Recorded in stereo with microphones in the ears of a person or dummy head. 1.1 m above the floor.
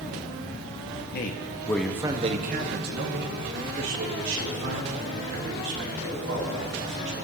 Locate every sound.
1.1 s a man speaking: 45° left (ahead or behind), 1.0 m; by 7.2 s 70° right (ahead or behind), 5.5 m